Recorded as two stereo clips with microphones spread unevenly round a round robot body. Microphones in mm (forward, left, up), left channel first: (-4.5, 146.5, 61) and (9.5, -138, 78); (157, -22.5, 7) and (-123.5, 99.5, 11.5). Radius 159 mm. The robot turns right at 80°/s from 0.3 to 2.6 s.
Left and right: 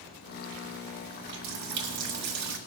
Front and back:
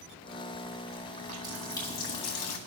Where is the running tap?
145° right, 1.6 m; by 2.6 s 35° right, 1.6 m.